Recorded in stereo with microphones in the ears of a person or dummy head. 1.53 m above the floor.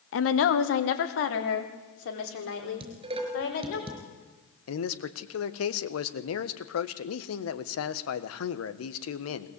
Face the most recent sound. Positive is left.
turn(degrees=85)